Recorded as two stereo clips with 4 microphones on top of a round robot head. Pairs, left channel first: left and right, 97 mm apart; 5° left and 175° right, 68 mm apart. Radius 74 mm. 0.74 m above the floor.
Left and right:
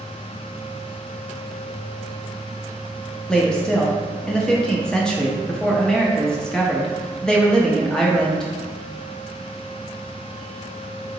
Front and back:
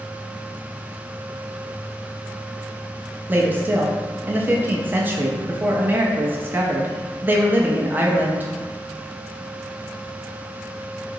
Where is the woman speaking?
160° left, 0.6 m.